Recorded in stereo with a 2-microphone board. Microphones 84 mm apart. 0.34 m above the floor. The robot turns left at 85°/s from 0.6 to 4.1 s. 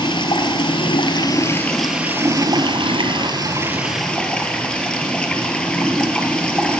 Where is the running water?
105° left, 1.3 m; by 6.8 s 170° left, 1.3 m.